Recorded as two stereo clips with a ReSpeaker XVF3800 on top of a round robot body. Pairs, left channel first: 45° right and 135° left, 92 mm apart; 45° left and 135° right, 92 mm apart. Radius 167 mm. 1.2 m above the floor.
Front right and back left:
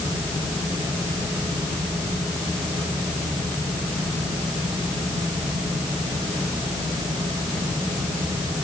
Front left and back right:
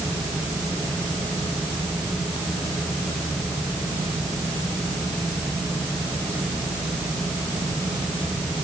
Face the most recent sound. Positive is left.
No sound to turn to.